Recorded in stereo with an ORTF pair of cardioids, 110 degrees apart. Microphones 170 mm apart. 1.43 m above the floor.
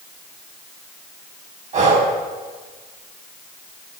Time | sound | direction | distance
1.7 | breathing | 45° right | 5.5 m